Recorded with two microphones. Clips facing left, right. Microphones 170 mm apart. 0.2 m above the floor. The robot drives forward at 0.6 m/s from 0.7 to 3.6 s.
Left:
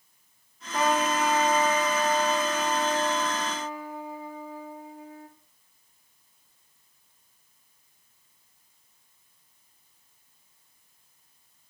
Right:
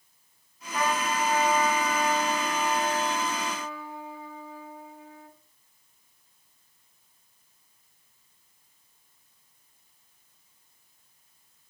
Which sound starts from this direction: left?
A trumpet, at 0.7 s.